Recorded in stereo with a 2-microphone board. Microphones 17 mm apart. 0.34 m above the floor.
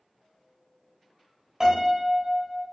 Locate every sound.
1.6 s a piano: 40° right (ahead or behind), 0.9 m